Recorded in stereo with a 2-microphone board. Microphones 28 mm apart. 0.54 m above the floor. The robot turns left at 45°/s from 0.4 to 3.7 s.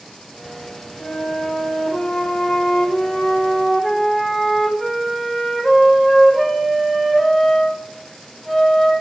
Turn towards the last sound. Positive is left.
turn(degrees=-5)